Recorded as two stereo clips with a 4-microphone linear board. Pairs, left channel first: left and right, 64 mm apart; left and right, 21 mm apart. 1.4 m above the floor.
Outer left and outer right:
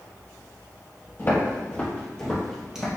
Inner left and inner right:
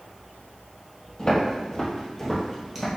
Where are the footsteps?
35° left (ahead or behind), 1.6 m; by 2.9 s 10° right (ahead or behind), 1.5 m.